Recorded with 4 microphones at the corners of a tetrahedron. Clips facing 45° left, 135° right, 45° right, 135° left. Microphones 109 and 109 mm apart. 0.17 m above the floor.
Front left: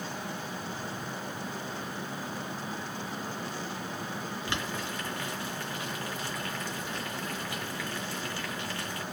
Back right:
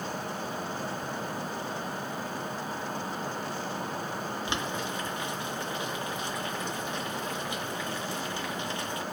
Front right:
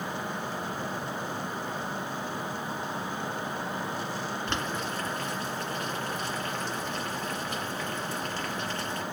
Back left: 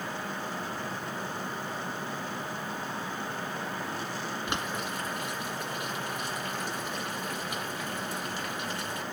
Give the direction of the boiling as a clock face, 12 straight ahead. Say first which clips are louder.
Back right 1 dB, front right 1 dB; 6 o'clock.